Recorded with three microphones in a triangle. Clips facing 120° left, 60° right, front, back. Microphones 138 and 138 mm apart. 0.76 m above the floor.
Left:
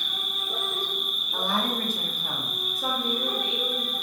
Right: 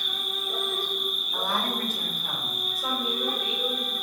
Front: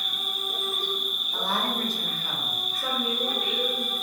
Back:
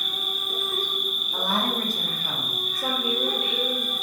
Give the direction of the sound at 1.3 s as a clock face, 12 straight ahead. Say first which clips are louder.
Left 2 dB, back 2 dB; 7 o'clock.